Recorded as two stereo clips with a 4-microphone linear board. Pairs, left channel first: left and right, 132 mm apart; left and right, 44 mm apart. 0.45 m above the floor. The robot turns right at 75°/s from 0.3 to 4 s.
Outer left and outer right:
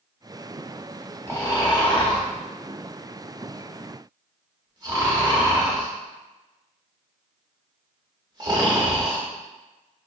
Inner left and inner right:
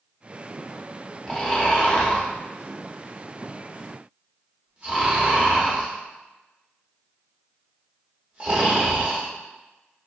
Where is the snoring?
20° left (ahead or behind), 1.0 m; by 9.2 s 30° right (ahead or behind), 1.0 m.